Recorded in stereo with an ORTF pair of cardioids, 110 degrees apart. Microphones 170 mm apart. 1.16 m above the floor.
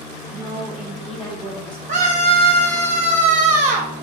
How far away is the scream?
About 0.7 m.